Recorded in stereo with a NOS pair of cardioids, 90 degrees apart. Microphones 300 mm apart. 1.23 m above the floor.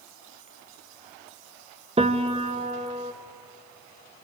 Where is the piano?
20° right, 1.4 m.